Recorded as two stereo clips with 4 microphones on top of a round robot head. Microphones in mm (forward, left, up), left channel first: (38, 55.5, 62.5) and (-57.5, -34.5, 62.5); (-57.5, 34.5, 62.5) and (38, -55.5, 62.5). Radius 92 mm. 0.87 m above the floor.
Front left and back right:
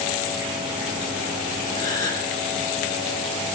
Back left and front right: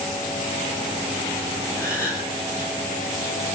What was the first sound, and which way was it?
A gasp, 70° left.